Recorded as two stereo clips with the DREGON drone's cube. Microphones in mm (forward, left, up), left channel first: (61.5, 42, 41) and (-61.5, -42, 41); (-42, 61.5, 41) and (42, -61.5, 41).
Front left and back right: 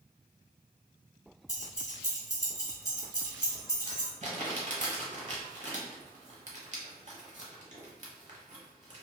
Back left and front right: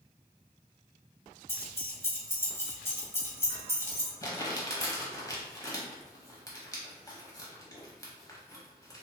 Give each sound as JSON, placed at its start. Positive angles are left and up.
{"t": 1.5, "sound": "keys jangling", "azimuth_deg": 70, "distance_m": 0.9}
{"t": 4.2, "sound": "crumpling", "azimuth_deg": -175, "distance_m": 0.8}